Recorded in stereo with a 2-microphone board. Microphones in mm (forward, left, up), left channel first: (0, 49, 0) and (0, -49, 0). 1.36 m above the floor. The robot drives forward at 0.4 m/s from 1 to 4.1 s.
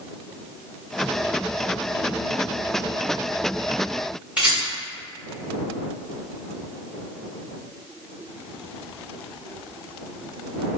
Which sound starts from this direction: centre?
A rattle, at 4.4 s.